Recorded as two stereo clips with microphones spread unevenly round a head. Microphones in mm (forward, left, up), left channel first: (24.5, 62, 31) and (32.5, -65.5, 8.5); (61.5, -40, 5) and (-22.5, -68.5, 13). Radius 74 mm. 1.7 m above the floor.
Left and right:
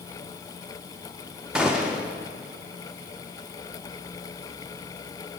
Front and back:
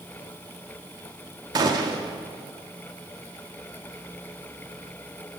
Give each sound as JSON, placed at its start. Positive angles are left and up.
{"t": 1.6, "sound": "a gunshot", "azimuth_deg": 180, "distance_m": 0.6}